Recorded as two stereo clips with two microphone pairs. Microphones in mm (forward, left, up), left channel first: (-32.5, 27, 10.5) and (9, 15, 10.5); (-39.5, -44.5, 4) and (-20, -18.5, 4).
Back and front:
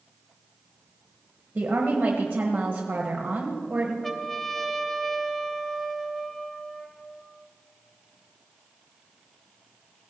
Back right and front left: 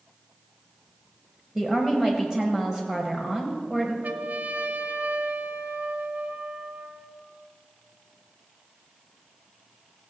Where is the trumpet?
80° left, 0.8 m.